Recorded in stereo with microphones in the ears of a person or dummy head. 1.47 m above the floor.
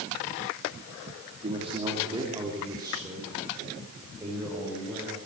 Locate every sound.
1.4 s a man speaking: 25° right (ahead or behind), 2.5 m; by 5.2 s 10° right (ahead or behind), 6.5 m